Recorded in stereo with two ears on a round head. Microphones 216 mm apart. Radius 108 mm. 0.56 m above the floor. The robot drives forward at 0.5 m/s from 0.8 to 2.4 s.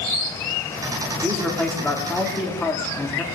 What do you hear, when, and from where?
1.2 s a man speaking: 5° left (ahead or behind), 1.5 m